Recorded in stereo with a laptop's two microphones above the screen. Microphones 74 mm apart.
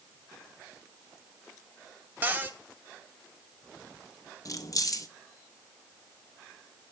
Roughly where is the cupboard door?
Right.